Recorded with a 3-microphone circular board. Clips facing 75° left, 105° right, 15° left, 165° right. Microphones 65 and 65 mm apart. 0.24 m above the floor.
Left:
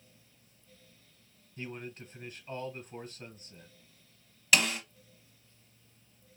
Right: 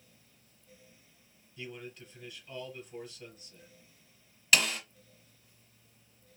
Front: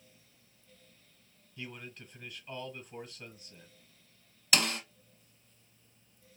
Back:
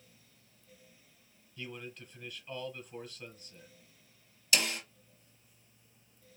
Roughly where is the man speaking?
Left.